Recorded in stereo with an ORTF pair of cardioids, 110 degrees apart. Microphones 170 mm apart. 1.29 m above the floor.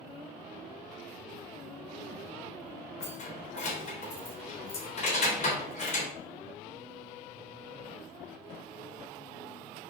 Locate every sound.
3.0 s keys jangling: 40° left, 3.5 m